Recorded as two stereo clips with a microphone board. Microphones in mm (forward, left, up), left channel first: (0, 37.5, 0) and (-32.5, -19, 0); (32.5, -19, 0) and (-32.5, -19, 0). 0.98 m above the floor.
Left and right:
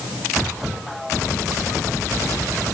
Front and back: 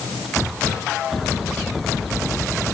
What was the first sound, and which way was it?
Only background noise.